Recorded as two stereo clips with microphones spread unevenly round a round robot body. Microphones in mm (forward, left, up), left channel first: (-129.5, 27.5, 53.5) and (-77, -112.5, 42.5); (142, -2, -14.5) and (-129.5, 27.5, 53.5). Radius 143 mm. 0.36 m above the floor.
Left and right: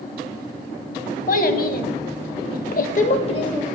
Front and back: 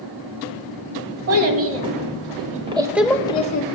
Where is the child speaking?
135° left, 1.6 m; by 3.6 s 40° left, 0.8 m.